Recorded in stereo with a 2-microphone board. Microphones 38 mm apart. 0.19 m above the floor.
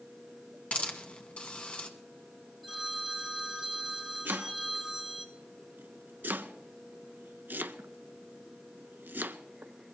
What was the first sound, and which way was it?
A hiss, 35° left (ahead or behind).